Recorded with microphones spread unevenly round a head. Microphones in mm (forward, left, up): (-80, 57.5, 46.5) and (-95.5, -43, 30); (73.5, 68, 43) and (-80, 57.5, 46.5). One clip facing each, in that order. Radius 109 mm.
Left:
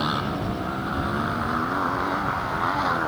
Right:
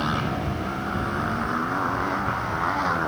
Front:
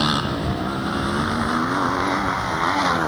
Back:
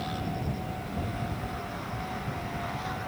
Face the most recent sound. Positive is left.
turn(degrees=-5)